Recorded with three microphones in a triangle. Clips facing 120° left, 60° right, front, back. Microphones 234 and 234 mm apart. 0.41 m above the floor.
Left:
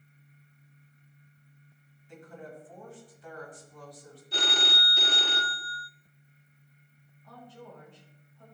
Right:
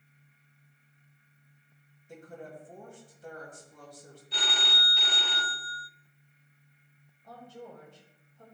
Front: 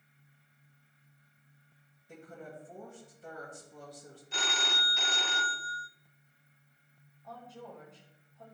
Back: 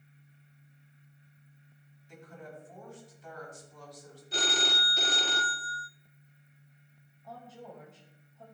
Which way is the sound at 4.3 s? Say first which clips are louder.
Left 5 dB, back 6 dB; 140° left.